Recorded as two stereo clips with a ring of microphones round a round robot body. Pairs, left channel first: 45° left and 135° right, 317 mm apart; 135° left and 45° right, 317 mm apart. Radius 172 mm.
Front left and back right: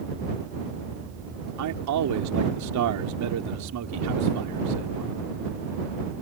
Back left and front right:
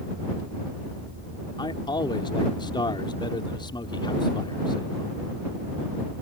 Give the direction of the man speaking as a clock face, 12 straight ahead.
5 o'clock.